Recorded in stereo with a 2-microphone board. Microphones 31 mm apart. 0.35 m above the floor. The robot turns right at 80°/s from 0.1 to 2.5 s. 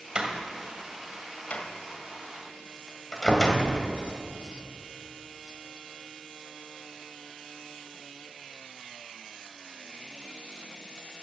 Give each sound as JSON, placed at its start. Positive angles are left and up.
{"t": 0.1, "sound": "a door slam", "side_deg": -30, "distance_m": 1.5}